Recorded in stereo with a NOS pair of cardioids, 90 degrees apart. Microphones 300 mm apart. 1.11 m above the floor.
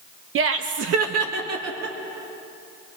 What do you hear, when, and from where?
0.3 s laughter: 45° right, 0.9 m; by 2.0 s 65° right, 2 m